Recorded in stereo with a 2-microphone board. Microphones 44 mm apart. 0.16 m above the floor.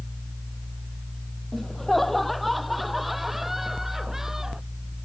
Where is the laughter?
5° left (ahead or behind); by 4.6 s 10° right (ahead or behind).